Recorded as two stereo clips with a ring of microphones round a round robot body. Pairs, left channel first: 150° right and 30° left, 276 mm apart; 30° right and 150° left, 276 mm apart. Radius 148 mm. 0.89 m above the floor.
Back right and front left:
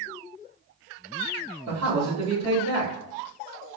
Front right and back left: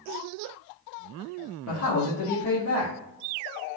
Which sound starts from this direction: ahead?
A man speaking, at 1.7 s.